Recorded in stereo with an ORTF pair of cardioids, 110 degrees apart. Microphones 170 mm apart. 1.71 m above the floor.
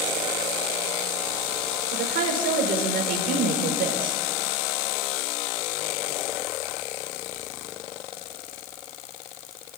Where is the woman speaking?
70° right, 5.5 m.